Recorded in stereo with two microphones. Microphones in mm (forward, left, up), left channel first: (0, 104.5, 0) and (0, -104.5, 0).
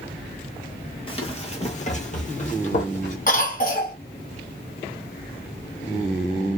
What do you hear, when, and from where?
1.1 s running footsteps: 25° left (ahead or behind), 1.0 m; by 3.2 s 40° left (ahead or behind), 1.5 m
3.3 s a cough: 40° left (ahead or behind), 1.6 m